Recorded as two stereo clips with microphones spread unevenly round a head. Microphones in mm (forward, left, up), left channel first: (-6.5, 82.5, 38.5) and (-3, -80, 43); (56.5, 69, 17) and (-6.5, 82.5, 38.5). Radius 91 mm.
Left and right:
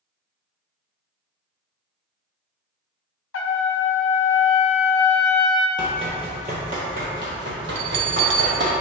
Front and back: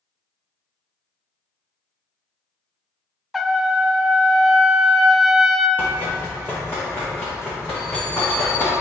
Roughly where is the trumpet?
Left.